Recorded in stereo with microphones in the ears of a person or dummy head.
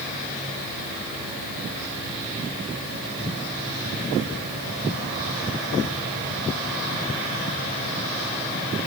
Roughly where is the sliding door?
I don't hear a sliding door.